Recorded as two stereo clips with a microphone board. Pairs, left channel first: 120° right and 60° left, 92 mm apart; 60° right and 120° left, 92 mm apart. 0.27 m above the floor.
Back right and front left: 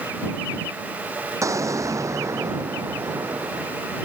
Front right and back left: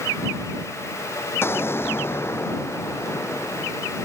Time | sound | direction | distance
1.4 | an explosion | 5° left | ?